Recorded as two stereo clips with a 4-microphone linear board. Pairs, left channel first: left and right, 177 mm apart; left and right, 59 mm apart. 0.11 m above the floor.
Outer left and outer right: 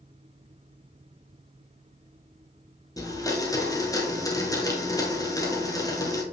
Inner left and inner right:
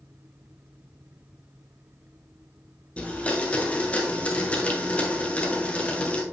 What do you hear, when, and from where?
3.0 s a blender: 20° left (ahead or behind), 1.3 m